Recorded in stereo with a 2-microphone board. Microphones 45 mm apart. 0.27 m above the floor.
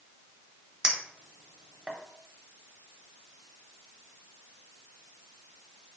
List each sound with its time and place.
0.8 s a clink: 15° right (ahead or behind), 0.7 m